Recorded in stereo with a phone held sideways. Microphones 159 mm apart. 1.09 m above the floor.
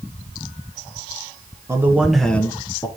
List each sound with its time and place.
1.7 s a man speaking: 20° right (ahead or behind), 0.9 m; by 2.9 s 30° left (ahead or behind), 0.8 m